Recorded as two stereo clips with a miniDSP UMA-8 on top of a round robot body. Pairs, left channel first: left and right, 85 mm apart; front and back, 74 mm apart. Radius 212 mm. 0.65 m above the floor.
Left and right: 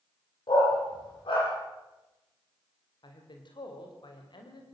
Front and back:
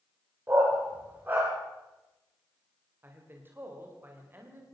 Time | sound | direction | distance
0.5 | a dog barking | 120° left | 7 m
3.0 | a man speaking | 120° left | 3.5 m